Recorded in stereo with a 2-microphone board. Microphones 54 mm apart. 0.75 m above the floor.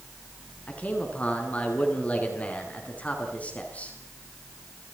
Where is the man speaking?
25° left (ahead or behind), 6.5 m.